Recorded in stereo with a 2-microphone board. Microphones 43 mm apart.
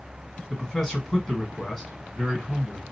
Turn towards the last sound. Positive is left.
turn(degrees=5)  # may be behind; listen again after turning